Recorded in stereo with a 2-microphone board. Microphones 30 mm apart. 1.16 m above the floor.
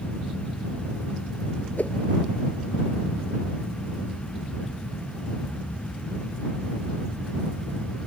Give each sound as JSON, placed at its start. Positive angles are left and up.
{"t": 1.8, "sound": "a whoosh", "side_deg": 65}